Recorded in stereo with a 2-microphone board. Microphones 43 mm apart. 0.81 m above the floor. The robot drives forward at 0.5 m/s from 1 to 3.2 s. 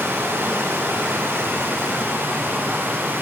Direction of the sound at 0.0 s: 75° right (ahead or behind).